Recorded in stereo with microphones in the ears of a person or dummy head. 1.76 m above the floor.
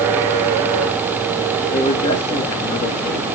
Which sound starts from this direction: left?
A man speaking, at 1.7 s.